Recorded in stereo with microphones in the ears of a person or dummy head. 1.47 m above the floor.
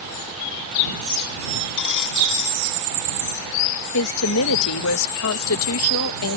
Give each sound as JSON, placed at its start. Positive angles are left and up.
{"t": 1.8, "sound": "a dropped coin", "side_deg": 65}
{"t": 3.9, "sound": "a woman speaking", "side_deg": 80}